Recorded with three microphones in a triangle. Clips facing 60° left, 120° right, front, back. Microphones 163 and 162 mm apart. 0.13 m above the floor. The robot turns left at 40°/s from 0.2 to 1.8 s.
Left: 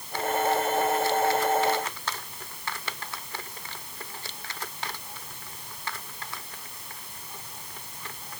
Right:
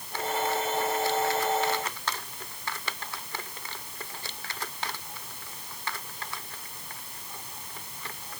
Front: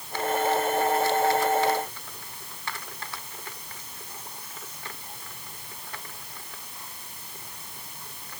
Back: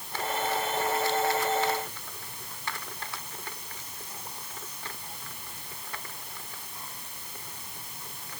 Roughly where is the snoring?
I don't hear snoring.